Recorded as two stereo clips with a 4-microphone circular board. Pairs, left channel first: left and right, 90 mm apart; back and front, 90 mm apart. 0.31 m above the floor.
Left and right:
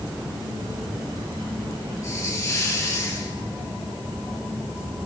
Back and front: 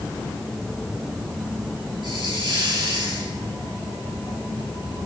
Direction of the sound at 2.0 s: 35° left.